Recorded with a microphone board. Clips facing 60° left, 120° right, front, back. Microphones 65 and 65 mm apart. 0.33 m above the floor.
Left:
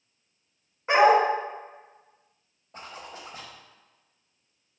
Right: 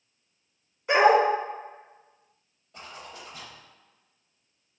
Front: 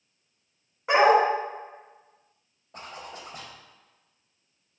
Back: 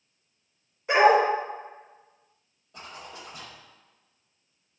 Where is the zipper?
25° left, 0.6 m.